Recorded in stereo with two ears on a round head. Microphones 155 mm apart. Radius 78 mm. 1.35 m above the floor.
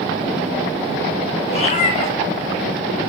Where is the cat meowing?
40° left (ahead or behind), 3 m.